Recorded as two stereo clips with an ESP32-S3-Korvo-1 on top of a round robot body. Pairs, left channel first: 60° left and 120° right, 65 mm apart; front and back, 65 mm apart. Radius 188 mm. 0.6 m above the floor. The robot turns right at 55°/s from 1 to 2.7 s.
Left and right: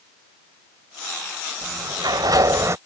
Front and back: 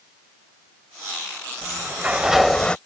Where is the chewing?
No chewing in this recording.